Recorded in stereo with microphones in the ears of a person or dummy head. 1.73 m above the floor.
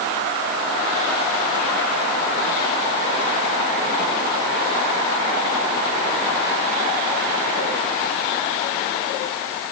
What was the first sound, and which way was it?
Only background noise.